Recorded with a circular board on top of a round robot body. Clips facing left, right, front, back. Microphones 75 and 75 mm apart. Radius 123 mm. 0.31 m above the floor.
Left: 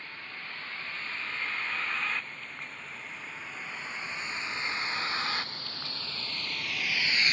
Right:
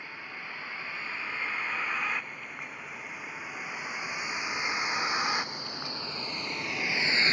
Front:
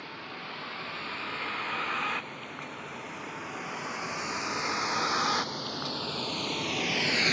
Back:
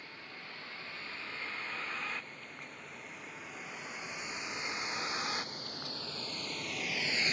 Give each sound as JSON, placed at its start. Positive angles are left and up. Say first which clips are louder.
{"t": 0.0, "sound": "a vehicle", "louder": "right 2 dB, front 8 dB", "azimuth_deg": -10}